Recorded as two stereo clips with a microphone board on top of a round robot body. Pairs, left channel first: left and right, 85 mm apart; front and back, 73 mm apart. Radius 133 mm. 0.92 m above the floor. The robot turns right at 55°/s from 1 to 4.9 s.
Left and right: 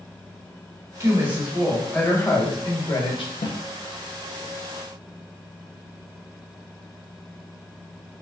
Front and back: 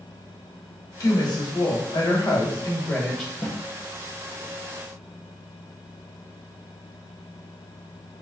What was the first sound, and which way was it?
A woman speaking, 40° right.